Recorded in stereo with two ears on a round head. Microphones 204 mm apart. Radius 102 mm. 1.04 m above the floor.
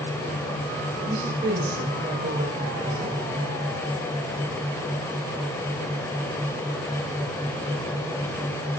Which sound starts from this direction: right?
A woman speaking, at 1.1 s.